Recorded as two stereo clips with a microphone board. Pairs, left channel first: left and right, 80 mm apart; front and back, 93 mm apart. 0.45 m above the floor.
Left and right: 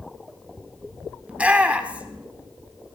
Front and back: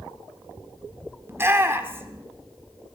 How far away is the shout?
About 1.1 m.